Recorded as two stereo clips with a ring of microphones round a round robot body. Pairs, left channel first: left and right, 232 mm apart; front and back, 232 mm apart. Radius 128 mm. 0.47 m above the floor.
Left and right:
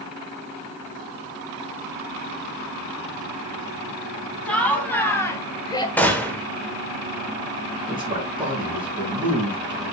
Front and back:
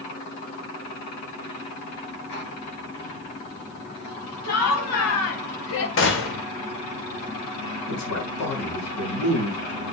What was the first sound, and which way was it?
Laughter, 5° left.